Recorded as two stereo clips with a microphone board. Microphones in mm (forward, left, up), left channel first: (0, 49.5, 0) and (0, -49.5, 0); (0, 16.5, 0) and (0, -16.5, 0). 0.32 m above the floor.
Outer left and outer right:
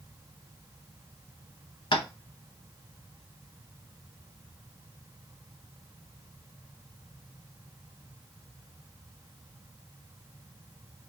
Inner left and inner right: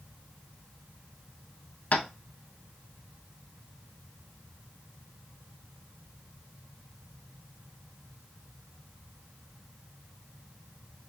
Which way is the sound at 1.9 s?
65° left (ahead or behind).